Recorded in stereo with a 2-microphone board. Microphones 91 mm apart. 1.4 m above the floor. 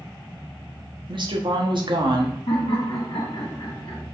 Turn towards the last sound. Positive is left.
turn(degrees=80)